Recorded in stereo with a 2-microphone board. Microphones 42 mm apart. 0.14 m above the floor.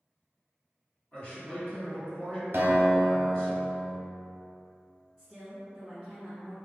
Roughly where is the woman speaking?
Centre.